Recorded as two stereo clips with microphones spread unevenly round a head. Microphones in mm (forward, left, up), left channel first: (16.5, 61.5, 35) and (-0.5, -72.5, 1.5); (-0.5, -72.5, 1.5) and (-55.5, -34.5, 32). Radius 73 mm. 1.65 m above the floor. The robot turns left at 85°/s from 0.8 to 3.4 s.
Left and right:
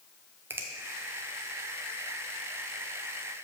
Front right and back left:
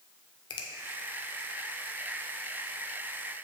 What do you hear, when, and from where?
0.5 s a finger snap: 20° right, 1.0 m